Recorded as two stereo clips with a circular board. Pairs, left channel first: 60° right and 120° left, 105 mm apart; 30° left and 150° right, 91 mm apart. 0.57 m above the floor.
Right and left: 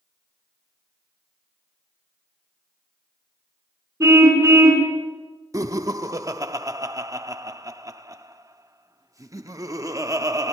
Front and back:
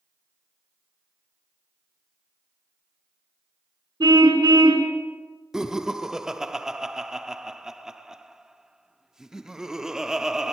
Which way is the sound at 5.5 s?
130° left.